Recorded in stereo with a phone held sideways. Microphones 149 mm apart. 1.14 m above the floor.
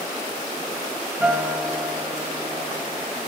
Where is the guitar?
10° right (ahead or behind), 1.8 m.